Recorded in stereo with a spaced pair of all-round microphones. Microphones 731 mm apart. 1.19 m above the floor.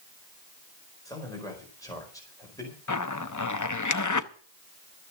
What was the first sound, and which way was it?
A man speaking, 5° left (ahead or behind).